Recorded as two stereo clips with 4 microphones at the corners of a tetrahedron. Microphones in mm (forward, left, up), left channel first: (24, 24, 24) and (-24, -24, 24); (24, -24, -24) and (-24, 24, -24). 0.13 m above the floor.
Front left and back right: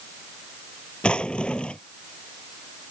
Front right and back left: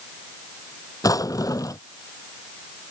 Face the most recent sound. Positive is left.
turn(degrees=-30)